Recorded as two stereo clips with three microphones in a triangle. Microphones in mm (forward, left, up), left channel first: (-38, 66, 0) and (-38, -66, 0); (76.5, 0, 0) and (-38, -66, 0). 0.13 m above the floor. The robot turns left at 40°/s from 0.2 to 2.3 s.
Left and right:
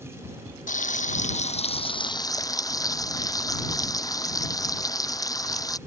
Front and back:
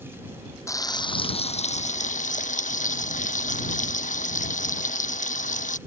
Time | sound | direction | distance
0.7 | frying | 95° left | ?